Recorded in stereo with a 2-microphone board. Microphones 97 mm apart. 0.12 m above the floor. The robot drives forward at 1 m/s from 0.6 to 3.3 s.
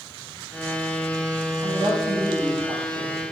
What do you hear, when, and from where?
1.6 s a woman speaking: 75° right (ahead or behind), 7.5 m; by 3.2 s 80° right, 7.5 m